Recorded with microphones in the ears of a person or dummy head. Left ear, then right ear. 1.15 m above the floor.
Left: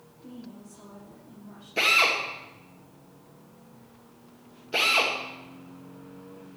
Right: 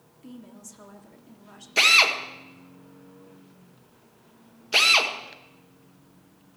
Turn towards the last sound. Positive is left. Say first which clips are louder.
# right 4 dB
turn(degrees=-40)  # may be behind; listen again after turning